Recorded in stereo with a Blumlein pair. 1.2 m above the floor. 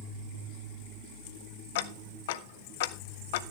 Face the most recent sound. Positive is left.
turn(degrees=50)